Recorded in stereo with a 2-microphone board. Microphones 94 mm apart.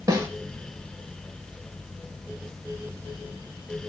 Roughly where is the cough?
No cough in this recording.